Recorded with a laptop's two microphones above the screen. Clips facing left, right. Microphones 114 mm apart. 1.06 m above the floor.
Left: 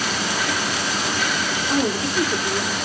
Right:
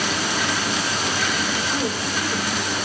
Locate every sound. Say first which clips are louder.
1.7 s a woman speaking: left 3 dB; 75° left (ahead or behind), 3 m